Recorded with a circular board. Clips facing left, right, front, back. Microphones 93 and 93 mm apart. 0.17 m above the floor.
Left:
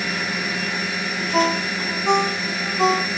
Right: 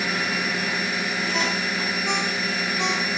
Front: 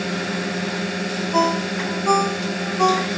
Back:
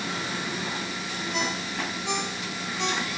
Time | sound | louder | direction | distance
0.0 | a drone | even, front 7 dB | 5° right | ?
1.3 | a ringtone | left 10 dB, front 12 dB | 40° left | ?